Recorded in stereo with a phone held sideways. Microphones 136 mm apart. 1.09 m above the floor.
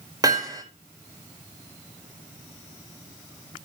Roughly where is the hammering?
Right.